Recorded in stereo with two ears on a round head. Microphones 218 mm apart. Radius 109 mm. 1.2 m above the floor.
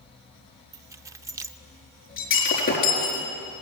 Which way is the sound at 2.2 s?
35° left (ahead or behind).